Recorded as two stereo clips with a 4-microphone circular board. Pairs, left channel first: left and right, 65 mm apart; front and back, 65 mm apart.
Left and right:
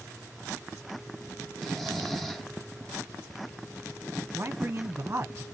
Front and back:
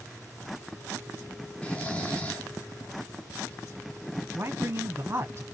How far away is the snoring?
About 0.9 m.